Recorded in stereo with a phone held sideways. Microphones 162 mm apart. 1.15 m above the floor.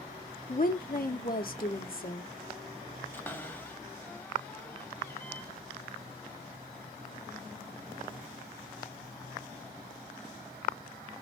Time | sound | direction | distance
0.5 | a woman speaking | 65° left (ahead or behind) | 0.9 m
3.1 | a cupboard door | 15° left (ahead or behind) | 0.8 m